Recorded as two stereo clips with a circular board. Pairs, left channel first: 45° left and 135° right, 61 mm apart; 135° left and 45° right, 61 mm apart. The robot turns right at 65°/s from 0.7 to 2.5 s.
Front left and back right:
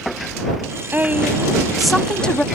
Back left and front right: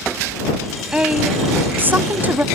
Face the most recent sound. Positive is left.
turn(degrees=-5)